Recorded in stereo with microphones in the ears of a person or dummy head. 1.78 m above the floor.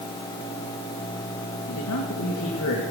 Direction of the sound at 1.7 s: 85° left.